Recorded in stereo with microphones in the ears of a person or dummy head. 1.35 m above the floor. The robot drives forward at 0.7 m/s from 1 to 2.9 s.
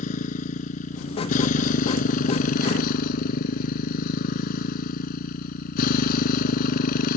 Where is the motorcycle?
45° left (ahead or behind); by 7.2 s 55° left (ahead or behind).